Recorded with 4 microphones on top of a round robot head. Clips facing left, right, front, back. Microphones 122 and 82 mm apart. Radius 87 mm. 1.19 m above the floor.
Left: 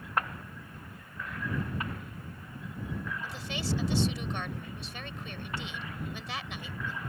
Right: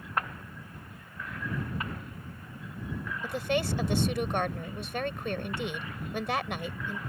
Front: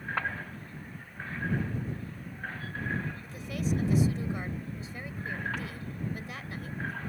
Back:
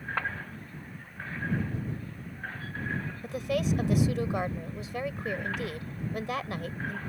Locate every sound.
3.2 s a woman speaking: 130° right